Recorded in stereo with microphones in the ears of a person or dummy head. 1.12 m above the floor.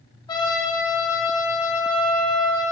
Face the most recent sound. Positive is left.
turn(degrees=25)  # may be behind; listen again after turning